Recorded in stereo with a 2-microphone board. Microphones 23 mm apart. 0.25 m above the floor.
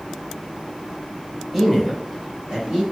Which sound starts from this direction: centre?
A man speaking, at 1.5 s.